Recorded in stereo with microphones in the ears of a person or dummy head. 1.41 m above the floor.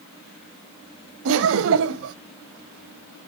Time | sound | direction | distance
1.2 | laughter | 70° right (ahead or behind) | 0.7 m